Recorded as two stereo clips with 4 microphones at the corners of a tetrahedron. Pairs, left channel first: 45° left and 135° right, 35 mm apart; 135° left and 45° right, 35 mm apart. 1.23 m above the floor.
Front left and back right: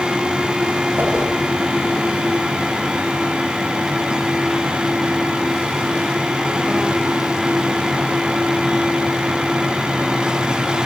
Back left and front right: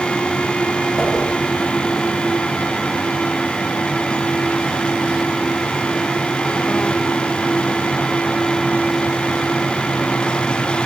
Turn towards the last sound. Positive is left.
turn(degrees=-140)